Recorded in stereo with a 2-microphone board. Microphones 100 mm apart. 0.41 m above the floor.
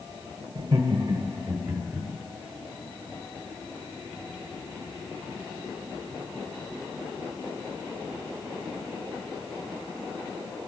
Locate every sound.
0.6 s laughter: 50° right (ahead or behind), 1.1 m; by 2.1 s 10° right (ahead or behind), 1.8 m